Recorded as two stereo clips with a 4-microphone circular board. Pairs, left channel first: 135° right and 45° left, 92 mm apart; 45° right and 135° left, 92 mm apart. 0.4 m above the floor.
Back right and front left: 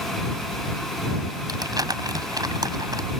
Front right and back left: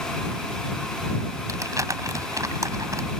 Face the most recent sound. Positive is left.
turn(degrees=85)